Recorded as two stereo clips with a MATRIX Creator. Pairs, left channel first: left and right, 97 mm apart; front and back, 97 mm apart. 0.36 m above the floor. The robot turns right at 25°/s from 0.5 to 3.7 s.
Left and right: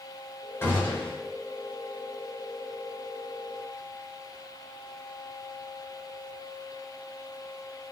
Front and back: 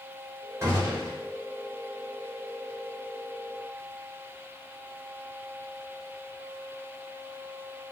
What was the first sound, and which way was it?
A gunshot, 140° left.